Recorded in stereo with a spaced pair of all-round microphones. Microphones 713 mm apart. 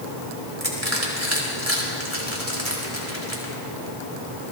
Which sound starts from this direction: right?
Crushing, at 0.6 s.